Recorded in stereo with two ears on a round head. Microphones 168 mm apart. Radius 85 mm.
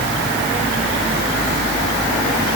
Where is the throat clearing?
No throat clearing in this recording.